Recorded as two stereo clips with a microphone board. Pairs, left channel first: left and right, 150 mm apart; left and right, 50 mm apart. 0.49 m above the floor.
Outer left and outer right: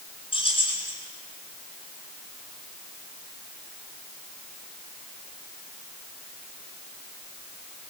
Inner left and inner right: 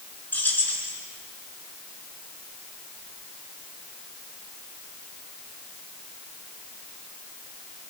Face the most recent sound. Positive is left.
turn(degrees=35)  # may be behind; listen again after turning